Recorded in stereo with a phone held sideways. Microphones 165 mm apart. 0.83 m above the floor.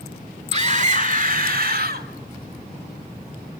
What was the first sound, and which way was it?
A scream, 40° right (ahead or behind).